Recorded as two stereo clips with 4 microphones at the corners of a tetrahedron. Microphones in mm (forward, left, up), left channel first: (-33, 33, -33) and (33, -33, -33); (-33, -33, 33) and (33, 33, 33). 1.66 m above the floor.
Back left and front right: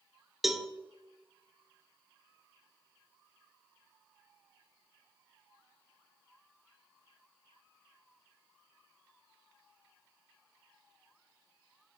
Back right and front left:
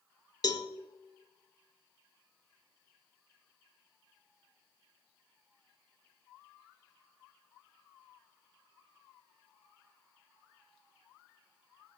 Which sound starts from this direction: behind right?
A cowbell, at 0.4 s.